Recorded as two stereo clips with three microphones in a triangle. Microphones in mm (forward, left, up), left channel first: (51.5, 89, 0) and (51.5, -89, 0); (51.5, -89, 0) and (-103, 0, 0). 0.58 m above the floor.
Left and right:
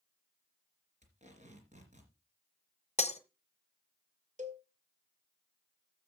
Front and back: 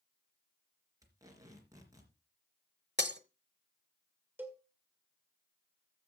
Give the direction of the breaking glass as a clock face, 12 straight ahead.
7 o'clock.